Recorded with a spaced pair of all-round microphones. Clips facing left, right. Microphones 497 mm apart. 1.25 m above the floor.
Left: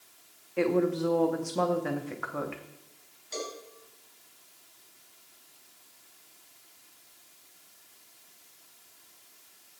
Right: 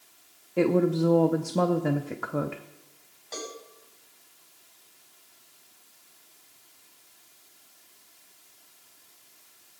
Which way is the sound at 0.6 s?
55° right (ahead or behind).